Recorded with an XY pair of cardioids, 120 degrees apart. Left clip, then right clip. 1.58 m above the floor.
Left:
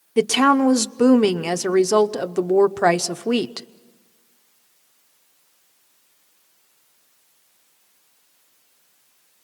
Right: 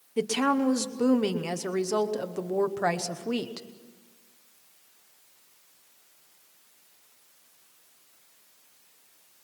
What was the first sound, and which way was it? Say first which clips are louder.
A woman speaking: left 9 dB; 50° left.